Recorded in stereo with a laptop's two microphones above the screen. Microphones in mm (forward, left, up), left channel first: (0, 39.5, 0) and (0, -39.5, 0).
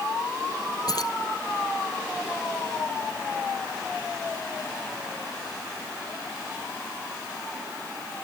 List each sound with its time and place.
0.9 s keys jangling: 55° left (ahead or behind)